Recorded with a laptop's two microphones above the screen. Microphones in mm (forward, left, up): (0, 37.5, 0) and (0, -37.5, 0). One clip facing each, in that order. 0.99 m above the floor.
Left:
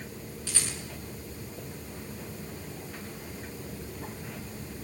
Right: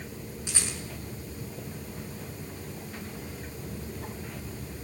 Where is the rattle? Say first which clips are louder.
Right 1 dB; 20° right (ahead or behind), 6 m.